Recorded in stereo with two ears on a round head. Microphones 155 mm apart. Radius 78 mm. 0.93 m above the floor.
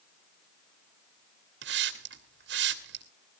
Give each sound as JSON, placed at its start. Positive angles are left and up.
{"t": 1.6, "sound": "a hiss", "side_deg": -70, "distance_m": 2.0}